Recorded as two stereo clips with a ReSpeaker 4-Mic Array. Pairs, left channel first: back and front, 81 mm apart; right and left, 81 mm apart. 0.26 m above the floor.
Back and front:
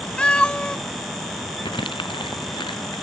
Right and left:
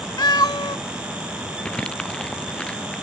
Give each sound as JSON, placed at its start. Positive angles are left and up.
{"t": 0.2, "sound": "a cat meowing", "azimuth_deg": -105}
{"t": 1.6, "sound": "crumpling", "azimuth_deg": -170}